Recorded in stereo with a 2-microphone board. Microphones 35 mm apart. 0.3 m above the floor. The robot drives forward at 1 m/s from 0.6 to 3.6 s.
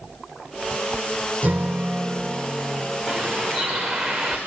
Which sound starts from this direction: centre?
A bird, at 3.1 s.